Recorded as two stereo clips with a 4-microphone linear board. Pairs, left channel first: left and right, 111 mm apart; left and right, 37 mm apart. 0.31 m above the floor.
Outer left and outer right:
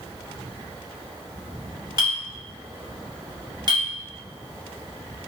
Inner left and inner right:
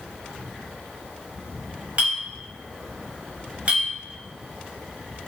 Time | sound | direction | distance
2.0 | a clink | 40° right (ahead or behind) | 1.0 m